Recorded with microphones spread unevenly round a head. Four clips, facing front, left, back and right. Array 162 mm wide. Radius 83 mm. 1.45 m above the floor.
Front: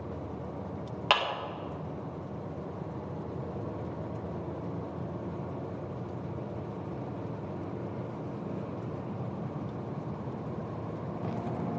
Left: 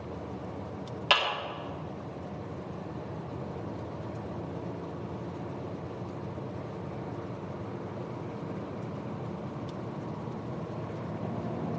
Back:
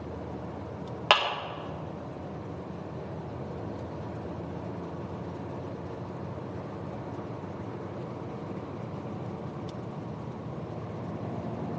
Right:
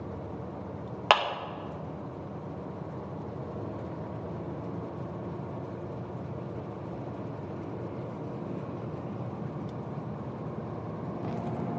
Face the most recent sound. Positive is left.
turn(degrees=-115)